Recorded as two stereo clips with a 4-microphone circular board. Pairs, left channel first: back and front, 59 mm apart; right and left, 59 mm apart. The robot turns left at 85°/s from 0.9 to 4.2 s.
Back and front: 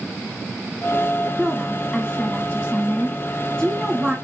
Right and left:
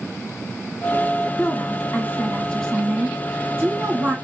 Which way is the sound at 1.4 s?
50° right.